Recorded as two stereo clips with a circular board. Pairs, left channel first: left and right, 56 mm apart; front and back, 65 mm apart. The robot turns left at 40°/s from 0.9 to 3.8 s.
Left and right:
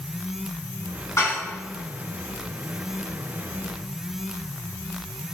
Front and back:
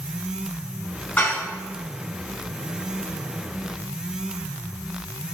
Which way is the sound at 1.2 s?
60° left.